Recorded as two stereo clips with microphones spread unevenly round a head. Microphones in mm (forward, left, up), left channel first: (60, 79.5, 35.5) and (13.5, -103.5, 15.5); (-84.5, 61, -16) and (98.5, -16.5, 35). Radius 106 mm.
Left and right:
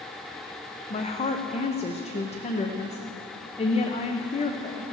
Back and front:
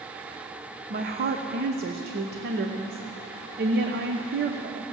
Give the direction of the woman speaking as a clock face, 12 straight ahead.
11 o'clock.